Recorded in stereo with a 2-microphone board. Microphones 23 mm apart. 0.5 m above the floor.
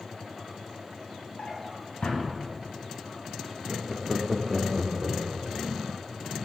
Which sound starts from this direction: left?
A drawer, at 1.4 s.